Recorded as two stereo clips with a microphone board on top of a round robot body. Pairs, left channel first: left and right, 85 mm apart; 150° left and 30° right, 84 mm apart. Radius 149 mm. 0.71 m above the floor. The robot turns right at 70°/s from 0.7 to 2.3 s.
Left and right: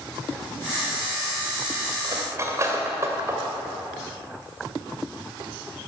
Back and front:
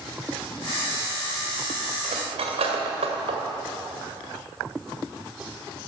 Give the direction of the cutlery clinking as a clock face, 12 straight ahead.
2 o'clock.